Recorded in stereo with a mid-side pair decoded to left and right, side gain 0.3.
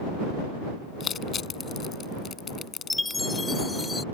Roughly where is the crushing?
Ahead left.